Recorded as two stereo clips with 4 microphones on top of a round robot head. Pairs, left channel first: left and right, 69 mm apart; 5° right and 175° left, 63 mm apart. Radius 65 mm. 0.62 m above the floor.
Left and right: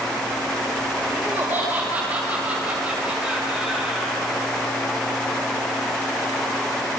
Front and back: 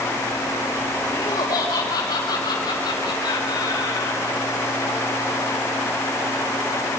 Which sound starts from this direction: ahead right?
Laughter, at 1.1 s.